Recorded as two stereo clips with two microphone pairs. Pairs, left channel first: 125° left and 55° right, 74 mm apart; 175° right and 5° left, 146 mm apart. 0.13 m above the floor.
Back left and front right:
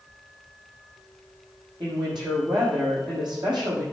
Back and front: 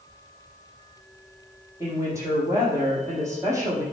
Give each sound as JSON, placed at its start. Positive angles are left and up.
{"t": 1.8, "sound": "a woman speaking", "azimuth_deg": -60, "distance_m": 6.0}